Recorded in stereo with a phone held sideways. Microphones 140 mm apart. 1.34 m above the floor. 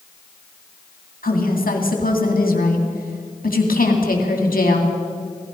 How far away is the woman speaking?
About 2.5 m.